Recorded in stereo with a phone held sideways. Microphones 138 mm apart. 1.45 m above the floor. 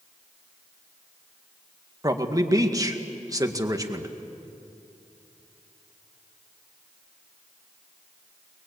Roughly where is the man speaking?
Right.